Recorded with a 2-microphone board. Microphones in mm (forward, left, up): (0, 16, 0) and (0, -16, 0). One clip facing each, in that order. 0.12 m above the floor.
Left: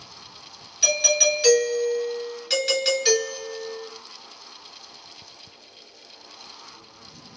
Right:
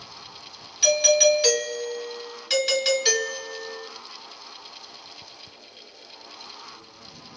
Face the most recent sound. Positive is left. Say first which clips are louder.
# right 3 dB
turn(degrees=-5)  # may be behind; listen again after turning